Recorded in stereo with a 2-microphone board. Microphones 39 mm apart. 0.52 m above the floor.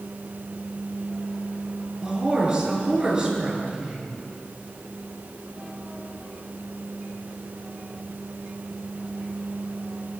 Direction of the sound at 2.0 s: 15° right (ahead or behind).